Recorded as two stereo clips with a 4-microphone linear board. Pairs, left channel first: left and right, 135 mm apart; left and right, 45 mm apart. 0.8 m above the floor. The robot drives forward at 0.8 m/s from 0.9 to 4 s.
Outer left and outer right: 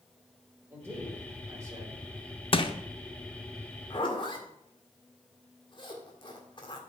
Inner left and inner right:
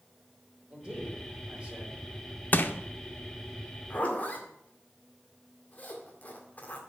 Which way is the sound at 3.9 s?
35° left (ahead or behind).